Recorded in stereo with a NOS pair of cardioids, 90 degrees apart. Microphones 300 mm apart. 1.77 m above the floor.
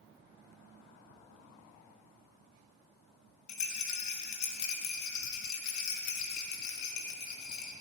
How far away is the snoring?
No snoring in this recording.